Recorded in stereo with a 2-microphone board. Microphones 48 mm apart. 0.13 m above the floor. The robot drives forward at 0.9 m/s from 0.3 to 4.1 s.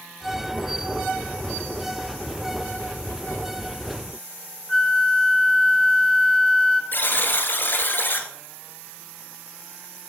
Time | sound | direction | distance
4.7 | a flute | 10° left (ahead or behind) | 1.8 m
6.9 | a buzzer | 45° left (ahead or behind) | 1.2 m